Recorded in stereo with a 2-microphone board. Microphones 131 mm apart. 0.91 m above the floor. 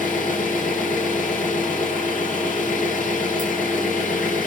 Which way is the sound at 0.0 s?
85° left.